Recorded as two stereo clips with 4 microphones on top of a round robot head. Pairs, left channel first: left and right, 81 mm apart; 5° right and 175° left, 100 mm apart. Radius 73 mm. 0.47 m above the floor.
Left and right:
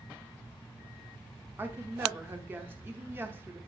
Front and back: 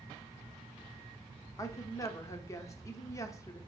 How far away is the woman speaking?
About 0.9 m.